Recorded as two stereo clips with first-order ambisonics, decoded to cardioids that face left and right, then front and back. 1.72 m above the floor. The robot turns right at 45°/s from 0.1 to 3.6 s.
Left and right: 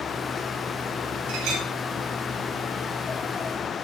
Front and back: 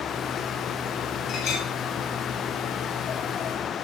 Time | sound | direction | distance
1.3 | a clink | 70° right | 4.5 m